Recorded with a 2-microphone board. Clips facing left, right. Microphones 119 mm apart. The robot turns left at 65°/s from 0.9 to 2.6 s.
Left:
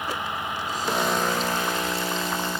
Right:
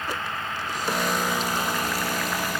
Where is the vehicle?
15° left; by 2.6 s 95° right.